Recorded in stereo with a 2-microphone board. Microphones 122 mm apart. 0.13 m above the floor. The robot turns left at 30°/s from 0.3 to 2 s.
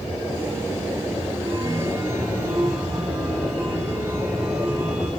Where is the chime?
30° right (ahead or behind), 8 m; by 5.1 s 15° right (ahead or behind), 8 m.